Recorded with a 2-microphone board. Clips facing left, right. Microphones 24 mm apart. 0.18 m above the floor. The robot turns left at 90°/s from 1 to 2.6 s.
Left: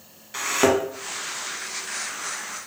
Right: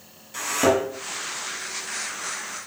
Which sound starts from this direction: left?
A thud, at 0.3 s.